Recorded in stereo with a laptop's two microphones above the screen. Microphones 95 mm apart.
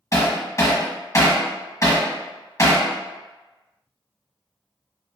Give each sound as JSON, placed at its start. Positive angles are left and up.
{"t": 0.1, "sound": "hammering", "side_deg": 35, "distance_m": 1.3}